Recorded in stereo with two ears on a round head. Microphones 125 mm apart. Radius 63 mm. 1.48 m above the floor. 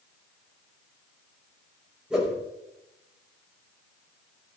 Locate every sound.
2.1 s a whoosh: 5° right (ahead or behind), 5.5 m